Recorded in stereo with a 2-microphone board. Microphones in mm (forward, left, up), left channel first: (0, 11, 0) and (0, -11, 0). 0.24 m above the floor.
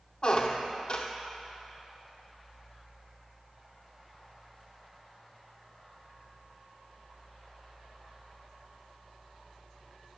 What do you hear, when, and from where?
0.2 s a squeak: 45° left (ahead or behind), 0.8 m